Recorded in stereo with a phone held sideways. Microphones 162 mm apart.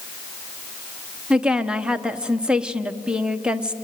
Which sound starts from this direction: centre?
A woman speaking, at 1.3 s.